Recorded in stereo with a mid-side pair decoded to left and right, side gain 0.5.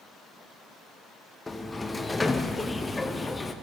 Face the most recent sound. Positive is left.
turn(degrees=20)